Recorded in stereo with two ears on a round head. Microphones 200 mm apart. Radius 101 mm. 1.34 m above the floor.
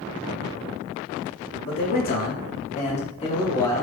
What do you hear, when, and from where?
1.6 s a man speaking: 45° left (ahead or behind), 3 m; by 3.8 s 15° left (ahead or behind), 2 m